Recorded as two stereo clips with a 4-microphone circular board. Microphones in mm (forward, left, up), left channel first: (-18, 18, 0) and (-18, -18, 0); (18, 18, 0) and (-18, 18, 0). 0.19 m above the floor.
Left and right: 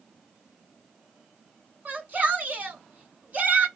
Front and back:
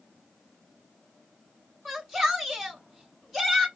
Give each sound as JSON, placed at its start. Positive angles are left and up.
{"t": 1.9, "sound": "a shout", "azimuth_deg": -85, "distance_m": 1.8}